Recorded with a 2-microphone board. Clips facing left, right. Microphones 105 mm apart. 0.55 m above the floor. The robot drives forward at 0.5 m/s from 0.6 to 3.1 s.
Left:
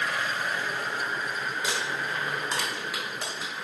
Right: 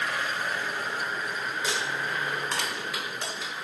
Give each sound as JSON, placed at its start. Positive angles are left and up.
{"t": 1.6, "sound": "crumpling", "side_deg": 10, "distance_m": 1.9}